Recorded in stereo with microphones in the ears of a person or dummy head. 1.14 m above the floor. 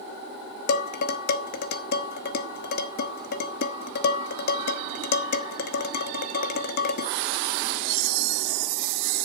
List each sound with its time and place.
0.7 s dishes clattering: 60° left (ahead or behind), 1.4 m